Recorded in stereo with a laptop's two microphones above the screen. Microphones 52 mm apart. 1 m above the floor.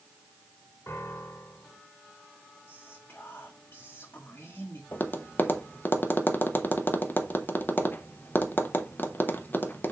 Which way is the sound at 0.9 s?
60° left (ahead or behind).